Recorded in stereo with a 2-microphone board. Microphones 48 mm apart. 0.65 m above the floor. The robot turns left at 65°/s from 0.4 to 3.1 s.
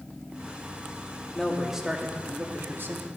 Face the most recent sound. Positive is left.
turn(degrees=-100)